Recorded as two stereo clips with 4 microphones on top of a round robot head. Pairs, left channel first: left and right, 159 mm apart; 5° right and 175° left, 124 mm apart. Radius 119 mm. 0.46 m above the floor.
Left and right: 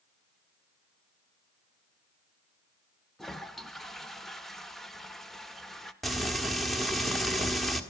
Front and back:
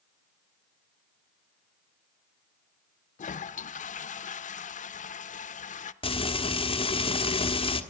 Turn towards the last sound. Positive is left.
turn(degrees=0)